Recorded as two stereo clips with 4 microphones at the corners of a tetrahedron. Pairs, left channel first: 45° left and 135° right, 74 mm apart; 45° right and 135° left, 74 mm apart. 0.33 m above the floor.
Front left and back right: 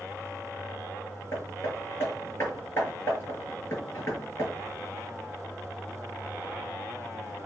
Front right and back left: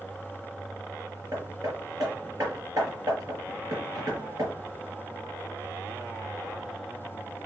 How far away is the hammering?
About 5.5 m.